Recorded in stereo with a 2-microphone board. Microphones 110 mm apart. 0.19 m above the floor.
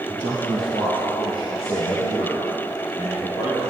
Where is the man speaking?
40° left (ahead or behind), 2.5 m; by 3.7 s 75° left (ahead or behind), 6.5 m.